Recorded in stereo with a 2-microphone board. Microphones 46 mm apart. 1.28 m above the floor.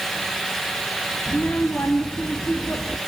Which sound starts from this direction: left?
A child speaking, at 1.3 s.